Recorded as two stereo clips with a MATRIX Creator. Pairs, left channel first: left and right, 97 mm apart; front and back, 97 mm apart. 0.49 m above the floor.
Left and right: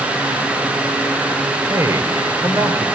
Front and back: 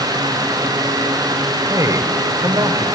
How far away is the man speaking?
About 1.9 m.